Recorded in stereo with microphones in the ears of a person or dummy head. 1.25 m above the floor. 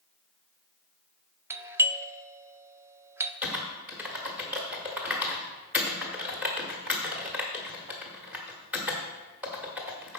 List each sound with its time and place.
1.5 s a doorbell: 15° right (ahead or behind), 0.6 m
3.4 s typing on a keyboard: 5° right (ahead or behind), 1.2 m